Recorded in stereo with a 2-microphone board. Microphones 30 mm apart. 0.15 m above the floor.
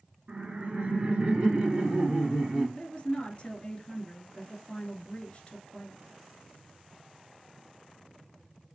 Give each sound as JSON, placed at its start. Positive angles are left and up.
{"t": 0.3, "sound": "laughter", "side_deg": -40, "distance_m": 2.0}
{"t": 2.8, "sound": "a woman speaking", "side_deg": 40, "distance_m": 1.8}